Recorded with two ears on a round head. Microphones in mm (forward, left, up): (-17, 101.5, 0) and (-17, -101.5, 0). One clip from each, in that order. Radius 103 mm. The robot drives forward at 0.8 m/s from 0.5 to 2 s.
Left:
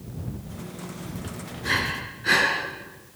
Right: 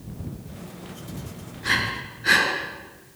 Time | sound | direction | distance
1.6 | breathing | 20° right (ahead or behind) | 5 m